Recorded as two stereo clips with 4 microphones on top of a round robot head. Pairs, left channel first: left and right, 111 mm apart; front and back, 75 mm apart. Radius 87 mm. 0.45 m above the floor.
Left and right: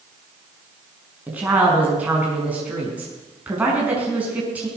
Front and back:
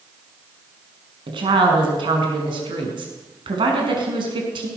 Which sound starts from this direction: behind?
A woman speaking, at 1.3 s.